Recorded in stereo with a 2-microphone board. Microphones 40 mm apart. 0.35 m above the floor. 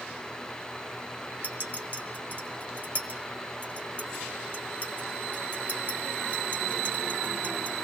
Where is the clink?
55° right (ahead or behind), 1.7 m.